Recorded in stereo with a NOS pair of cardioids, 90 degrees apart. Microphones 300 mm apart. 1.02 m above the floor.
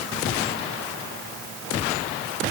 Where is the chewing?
I don't hear chewing.